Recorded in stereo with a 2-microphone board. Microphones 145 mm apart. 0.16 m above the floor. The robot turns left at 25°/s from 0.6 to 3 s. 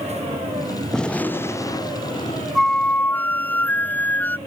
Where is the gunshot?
175° left; by 2.5 s 140° left.